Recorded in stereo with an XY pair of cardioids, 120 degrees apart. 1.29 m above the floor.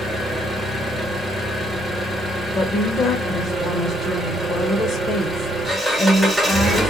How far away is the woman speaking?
About 0.7 m.